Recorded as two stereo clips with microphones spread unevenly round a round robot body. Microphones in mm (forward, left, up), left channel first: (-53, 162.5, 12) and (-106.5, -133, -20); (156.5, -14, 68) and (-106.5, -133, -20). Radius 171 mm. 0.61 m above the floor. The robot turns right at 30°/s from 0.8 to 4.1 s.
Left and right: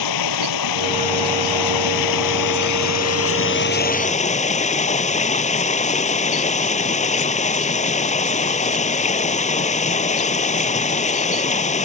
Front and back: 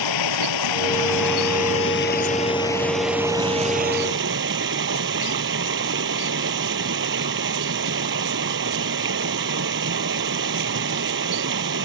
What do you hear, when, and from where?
0.0 s running water: 45° left; by 11.8 s 145° left